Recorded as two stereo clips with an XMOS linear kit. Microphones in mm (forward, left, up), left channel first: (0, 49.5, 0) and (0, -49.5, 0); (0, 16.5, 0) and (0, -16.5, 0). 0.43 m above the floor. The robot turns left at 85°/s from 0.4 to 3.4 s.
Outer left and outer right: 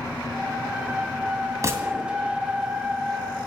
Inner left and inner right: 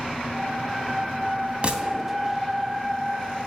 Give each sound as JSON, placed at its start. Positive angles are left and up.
{"t": 1.6, "sound": "a gunshot", "azimuth_deg": -145, "distance_m": 2.5}